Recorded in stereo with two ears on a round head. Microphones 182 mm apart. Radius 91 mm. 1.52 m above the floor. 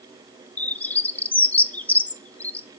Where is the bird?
10° left (ahead or behind), 0.6 m.